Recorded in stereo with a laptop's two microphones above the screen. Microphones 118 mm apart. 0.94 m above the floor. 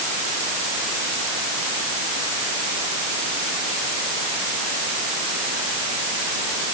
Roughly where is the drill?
I don't hear a drill.